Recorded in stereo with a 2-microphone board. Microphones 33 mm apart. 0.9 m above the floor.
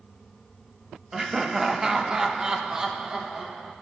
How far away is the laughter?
About 1.0 m.